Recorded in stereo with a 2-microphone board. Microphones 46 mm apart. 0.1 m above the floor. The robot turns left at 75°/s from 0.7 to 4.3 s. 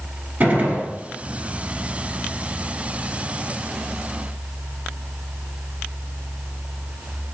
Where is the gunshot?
35° right (ahead or behind), 1.5 m; by 0.9 s 30° right (ahead or behind), 1.5 m.